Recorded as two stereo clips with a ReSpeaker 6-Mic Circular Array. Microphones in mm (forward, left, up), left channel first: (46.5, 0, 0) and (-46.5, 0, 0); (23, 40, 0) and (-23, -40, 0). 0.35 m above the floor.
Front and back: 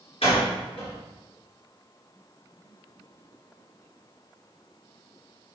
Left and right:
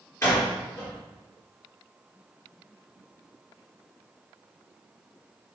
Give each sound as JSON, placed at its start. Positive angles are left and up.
{"t": 0.2, "sound": "a door slam", "azimuth_deg": 5, "distance_m": 3.5}